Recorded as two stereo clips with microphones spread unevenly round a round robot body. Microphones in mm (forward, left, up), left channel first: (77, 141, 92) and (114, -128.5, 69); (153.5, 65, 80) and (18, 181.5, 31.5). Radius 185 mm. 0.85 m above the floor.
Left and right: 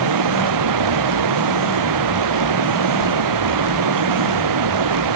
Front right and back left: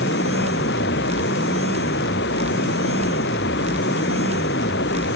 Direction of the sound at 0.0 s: 100° right.